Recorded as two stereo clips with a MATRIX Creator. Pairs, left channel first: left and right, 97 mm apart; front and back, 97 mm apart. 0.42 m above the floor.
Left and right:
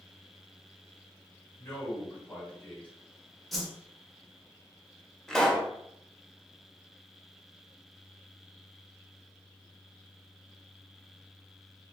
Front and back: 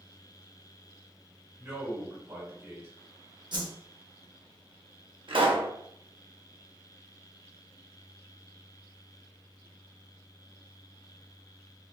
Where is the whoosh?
175° left, 0.6 m.